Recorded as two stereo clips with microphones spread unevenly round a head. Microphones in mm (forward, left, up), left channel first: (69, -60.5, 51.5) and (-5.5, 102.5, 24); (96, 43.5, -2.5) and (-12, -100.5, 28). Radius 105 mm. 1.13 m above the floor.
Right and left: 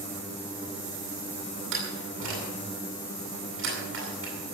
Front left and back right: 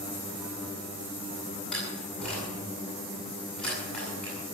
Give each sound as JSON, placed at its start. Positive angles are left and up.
{"t": 1.7, "sound": "a door slam", "azimuth_deg": 140, "distance_m": 8.0}